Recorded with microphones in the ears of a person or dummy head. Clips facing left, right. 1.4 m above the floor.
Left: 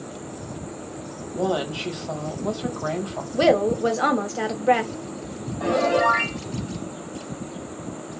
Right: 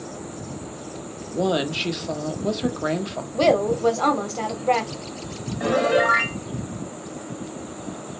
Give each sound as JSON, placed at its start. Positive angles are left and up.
{"t": 1.3, "sound": "a woman speaking", "side_deg": -25, "distance_m": 0.7}
{"t": 3.3, "sound": "a woman speaking", "side_deg": 15, "distance_m": 0.5}
{"t": 5.6, "sound": "a piano", "side_deg": -20, "distance_m": 0.7}